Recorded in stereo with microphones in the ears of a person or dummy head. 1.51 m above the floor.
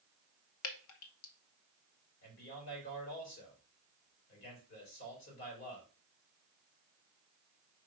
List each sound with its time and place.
0.6 s dripping: 65° left (ahead or behind), 0.9 m
2.2 s a man speaking: 60° left (ahead or behind), 4.5 m